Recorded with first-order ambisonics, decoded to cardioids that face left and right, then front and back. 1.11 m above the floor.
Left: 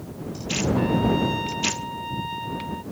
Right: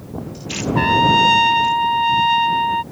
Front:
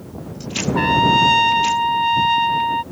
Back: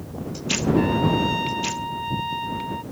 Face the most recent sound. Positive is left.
turn(degrees=-50)